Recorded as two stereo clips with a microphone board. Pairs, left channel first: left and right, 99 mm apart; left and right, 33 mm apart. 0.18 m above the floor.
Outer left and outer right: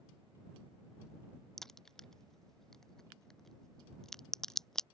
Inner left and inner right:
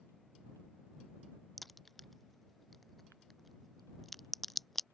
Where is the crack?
5° left (ahead or behind).